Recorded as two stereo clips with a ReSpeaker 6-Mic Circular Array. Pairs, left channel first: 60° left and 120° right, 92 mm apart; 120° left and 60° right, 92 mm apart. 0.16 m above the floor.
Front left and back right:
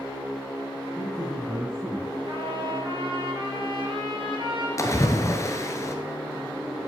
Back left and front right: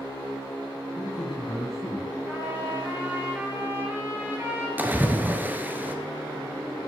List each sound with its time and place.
1.0 s a man speaking: 165° left, 3 m; by 2.2 s 170° left, 3.5 m
2.3 s a trumpet: 125° right, 3.5 m
4.8 s a splash: 10° left, 1.3 m